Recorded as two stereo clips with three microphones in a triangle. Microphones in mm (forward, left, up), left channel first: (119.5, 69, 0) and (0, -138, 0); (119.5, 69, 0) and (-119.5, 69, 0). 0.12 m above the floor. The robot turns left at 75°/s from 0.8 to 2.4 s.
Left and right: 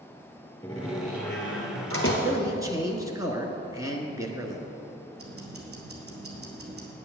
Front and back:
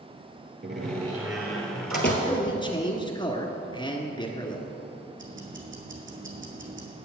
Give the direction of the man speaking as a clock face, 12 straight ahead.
1 o'clock.